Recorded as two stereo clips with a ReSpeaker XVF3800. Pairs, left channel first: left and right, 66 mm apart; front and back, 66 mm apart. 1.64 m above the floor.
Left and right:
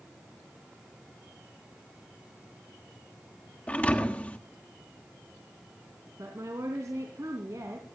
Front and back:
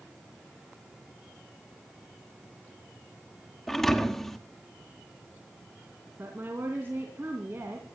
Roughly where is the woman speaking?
Behind right.